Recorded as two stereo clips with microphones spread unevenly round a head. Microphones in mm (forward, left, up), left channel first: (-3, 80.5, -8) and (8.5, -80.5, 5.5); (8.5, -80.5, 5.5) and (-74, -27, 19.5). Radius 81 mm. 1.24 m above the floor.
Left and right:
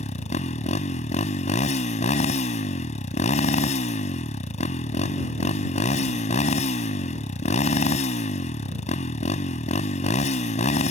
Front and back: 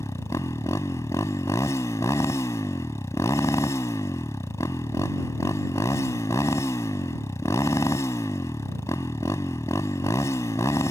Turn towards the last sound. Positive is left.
turn(degrees=45)